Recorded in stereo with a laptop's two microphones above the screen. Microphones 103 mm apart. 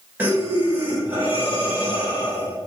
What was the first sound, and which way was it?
Breathing, 20° right (ahead or behind).